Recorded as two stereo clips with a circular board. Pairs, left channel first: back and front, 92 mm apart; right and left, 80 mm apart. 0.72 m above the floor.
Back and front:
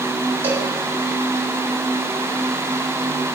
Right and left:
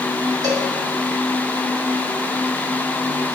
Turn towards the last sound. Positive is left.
turn(degrees=65)